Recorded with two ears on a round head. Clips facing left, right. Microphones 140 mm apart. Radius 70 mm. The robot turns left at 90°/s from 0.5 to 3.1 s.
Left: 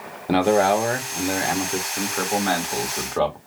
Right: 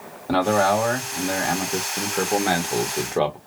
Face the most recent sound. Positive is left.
turn(degrees=-20)  # may be behind; listen again after turning